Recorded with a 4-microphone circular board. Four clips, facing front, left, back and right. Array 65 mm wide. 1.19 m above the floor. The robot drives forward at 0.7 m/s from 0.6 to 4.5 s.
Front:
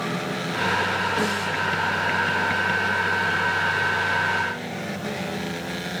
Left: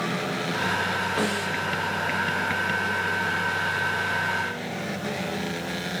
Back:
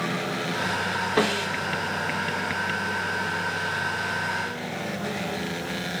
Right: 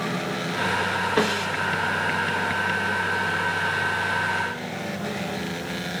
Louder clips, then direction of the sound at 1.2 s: Right 3 dB, even; 140° right.